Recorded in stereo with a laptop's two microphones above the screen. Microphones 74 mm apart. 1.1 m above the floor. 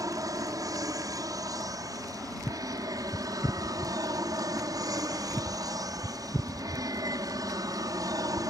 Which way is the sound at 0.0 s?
55° right (ahead or behind).